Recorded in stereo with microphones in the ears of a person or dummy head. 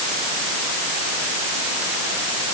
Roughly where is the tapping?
No tapping in this recording.